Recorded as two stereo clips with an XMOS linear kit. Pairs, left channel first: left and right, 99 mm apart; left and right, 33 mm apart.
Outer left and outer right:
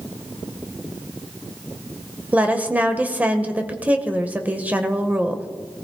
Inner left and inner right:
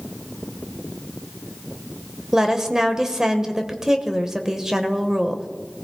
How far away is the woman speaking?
About 1.0 m.